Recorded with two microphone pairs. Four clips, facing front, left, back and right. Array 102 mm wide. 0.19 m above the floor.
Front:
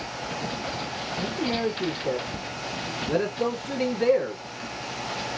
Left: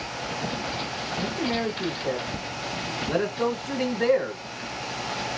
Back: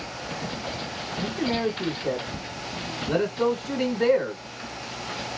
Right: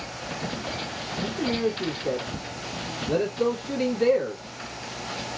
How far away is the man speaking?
About 1.2 m.